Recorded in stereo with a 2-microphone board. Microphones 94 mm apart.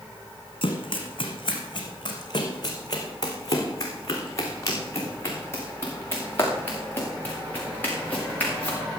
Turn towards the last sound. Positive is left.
turn(degrees=15)  # may be behind; listen again after turning